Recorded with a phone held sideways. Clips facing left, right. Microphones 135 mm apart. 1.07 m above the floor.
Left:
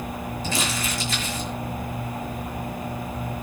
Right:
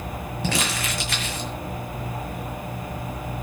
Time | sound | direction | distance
0.4 | crumpling | 70° right (ahead or behind) | 5.5 m